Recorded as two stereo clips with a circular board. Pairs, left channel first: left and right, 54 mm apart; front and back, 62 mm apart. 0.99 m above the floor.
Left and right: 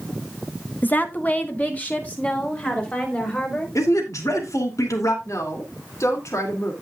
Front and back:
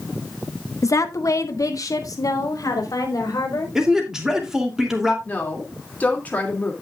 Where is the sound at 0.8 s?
35° left, 1.0 m; by 3.6 s 25° left, 5 m.